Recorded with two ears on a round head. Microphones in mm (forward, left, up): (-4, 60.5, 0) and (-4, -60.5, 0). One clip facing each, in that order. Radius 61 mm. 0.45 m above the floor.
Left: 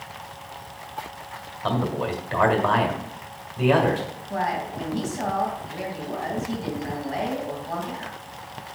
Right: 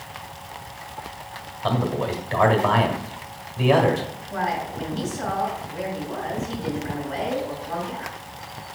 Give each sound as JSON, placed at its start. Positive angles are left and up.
{"t": 1.6, "sound": "a man speaking", "side_deg": 0, "distance_m": 1.6}
{"t": 4.3, "sound": "a woman speaking", "side_deg": 60, "distance_m": 3.0}